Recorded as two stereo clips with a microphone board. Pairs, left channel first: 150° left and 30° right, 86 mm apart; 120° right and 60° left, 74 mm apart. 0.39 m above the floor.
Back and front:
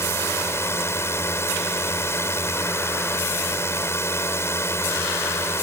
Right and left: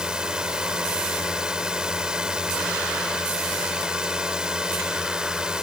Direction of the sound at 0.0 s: 130° left.